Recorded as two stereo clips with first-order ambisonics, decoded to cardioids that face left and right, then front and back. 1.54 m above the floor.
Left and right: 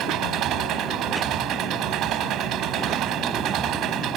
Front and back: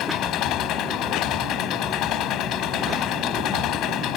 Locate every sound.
0.0 s an engine running: 45° right